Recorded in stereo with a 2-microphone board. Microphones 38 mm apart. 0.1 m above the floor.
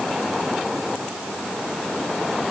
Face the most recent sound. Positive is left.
No sound to turn to.